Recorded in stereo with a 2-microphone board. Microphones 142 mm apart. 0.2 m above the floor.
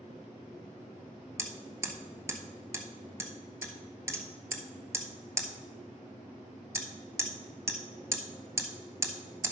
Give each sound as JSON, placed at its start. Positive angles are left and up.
{"t": 1.4, "sound": "hammering", "side_deg": -20, "distance_m": 1.0}